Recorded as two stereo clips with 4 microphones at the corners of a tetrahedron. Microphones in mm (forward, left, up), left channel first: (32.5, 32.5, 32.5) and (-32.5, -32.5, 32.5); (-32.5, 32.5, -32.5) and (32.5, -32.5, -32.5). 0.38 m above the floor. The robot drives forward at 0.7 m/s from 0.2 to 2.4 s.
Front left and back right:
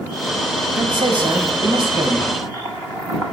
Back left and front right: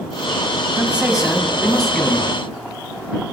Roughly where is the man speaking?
Behind right.